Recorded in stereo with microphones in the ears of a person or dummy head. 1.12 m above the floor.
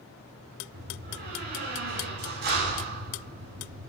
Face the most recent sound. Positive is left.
turn(degrees=-45)  # may be behind; listen again after turning